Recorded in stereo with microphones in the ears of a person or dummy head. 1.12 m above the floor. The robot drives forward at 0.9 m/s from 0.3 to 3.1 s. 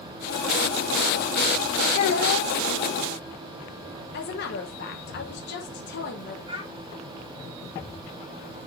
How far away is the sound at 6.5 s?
About 3 m.